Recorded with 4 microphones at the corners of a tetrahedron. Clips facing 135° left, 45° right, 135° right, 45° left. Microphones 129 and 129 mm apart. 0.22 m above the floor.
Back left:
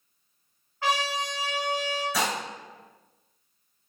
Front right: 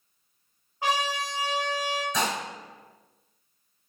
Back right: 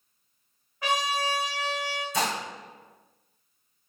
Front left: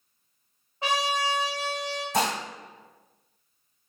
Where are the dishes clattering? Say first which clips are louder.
Even, front left 3 dB; 50° left, 1.7 m.